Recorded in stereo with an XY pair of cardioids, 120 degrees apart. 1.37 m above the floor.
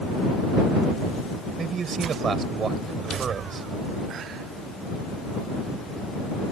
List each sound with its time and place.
1.6 s a man speaking: 40° right